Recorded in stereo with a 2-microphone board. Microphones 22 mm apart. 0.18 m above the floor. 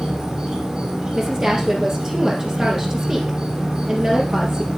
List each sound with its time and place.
0.0 s an insect: 40° right (ahead or behind), 5.5 m
1.1 s a woman speaking: 40° right (ahead or behind), 3.5 m